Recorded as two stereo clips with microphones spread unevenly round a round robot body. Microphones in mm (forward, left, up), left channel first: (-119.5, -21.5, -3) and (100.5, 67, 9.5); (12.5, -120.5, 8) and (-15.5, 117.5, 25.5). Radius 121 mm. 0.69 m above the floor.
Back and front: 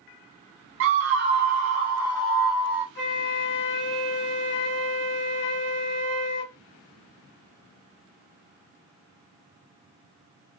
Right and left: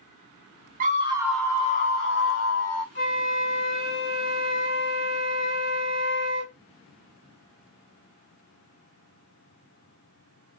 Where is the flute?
110° right, 2.5 m.